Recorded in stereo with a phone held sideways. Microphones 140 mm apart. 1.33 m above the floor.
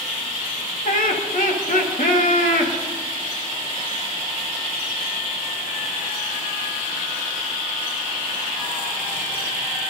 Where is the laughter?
70° left (ahead or behind), 2.5 m.